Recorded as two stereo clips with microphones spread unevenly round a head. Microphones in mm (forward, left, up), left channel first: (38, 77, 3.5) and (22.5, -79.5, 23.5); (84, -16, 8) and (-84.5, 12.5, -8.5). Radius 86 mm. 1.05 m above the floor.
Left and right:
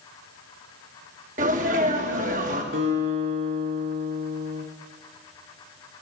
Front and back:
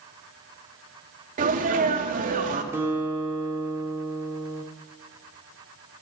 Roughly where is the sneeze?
Behind right.